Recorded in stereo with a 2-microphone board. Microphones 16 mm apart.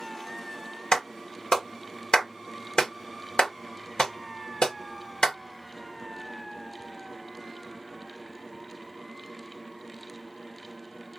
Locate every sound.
0.9 s a clap: 60° left (ahead or behind), 1.3 m